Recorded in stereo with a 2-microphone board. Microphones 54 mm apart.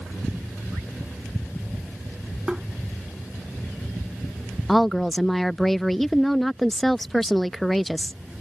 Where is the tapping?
15° right (ahead or behind).